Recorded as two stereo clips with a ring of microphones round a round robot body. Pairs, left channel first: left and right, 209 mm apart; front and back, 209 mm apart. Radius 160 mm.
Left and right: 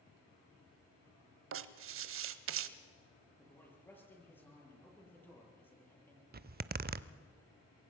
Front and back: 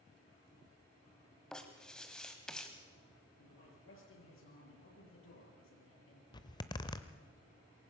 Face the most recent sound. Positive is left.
turn(degrees=-65)